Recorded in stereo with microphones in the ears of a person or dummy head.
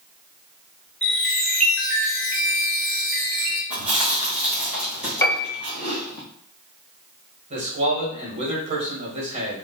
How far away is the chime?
About 1.5 m.